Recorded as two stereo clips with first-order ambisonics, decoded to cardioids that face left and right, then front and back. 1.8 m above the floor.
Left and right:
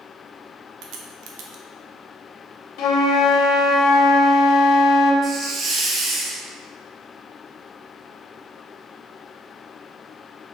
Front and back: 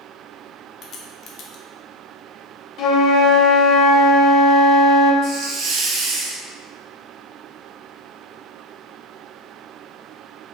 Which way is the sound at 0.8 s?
60° right.